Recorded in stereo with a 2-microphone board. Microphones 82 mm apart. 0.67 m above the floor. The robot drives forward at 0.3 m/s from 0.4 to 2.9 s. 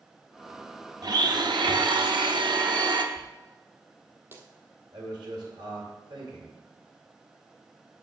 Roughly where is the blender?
Right.